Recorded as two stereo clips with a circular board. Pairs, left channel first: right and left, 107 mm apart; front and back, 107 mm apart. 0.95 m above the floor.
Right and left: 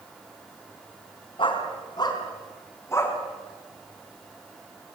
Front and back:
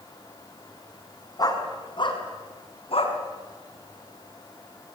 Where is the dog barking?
50° right, 4 m; by 3.2 s 25° right, 4 m.